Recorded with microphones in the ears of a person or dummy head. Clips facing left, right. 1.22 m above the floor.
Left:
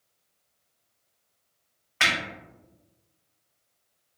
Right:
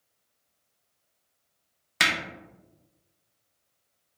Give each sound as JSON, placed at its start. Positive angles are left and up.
{"t": 2.0, "sound": "hammering", "side_deg": -50, "distance_m": 0.5}